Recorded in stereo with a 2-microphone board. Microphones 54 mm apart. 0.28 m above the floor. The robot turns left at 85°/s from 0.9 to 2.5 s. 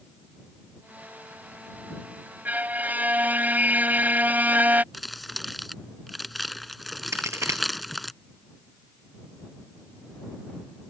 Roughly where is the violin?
Right.